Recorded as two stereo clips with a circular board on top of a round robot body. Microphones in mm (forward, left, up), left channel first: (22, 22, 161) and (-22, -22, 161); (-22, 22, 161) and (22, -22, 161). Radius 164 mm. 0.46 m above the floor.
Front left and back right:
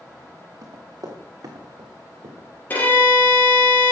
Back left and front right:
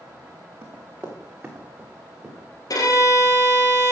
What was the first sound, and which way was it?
Running footsteps, 100° right.